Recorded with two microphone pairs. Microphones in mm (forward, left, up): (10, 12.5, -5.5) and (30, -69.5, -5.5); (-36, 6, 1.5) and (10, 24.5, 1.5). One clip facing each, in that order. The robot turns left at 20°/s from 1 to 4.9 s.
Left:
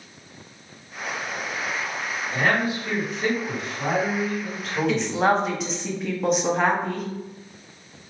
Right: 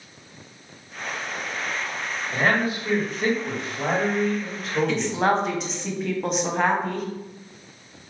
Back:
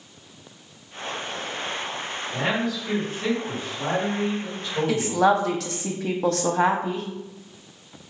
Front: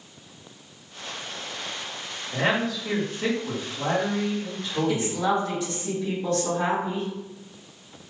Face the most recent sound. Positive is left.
turn(degrees=-165)